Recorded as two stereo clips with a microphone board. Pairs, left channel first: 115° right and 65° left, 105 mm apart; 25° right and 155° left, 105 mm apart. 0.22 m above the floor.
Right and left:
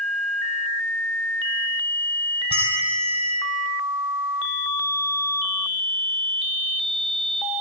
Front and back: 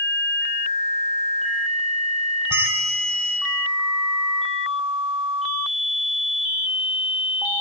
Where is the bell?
90° left, 2.5 m.